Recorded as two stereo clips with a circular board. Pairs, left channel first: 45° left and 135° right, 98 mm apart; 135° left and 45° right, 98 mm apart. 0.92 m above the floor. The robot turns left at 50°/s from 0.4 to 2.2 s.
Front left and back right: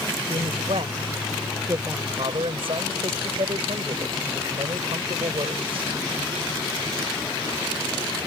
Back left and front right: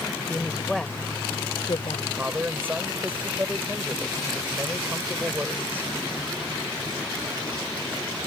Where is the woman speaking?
120° right; by 2.1 s 155° left.